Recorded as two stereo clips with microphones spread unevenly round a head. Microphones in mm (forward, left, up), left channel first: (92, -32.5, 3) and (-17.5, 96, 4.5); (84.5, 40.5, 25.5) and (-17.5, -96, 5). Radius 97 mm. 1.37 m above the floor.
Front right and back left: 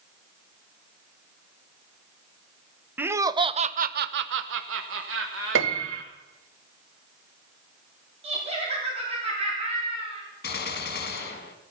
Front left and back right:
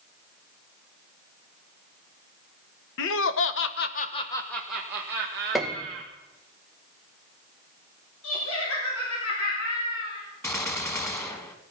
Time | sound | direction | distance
3.0 | laughter | 50° left | 1.1 m
5.5 | a piano | 140° left | 0.8 m
8.2 | laughter | 75° left | 3.5 m
10.4 | a gunshot | 20° right | 1.8 m